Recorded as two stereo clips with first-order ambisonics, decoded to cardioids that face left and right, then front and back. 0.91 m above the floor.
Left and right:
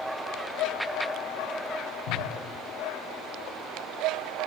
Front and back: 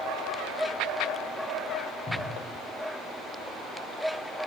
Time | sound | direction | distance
2.1 | a cupboard door | 80° left | 6 m